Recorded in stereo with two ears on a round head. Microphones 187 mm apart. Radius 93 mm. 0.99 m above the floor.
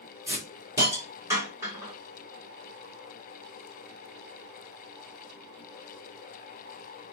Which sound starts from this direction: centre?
A hiss, at 0.3 s.